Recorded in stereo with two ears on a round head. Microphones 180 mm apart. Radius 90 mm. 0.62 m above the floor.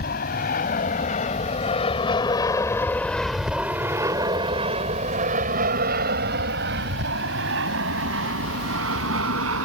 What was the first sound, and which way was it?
An aircraft, 45° left (ahead or behind).